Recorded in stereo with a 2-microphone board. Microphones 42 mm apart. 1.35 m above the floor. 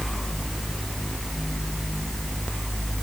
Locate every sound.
Only background noise.